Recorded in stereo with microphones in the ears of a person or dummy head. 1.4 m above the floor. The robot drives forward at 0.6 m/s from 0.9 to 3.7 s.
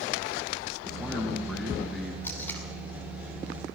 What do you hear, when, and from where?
0.8 s a man speaking: centre (ahead or behind), 1.8 m
2.2 s tape being pulled: 15° left (ahead or behind), 2.5 m